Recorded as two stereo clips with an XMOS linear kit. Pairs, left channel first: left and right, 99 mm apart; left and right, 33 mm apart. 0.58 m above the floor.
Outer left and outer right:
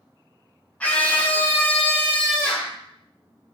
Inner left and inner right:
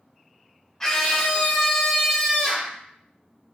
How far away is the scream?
About 0.7 m.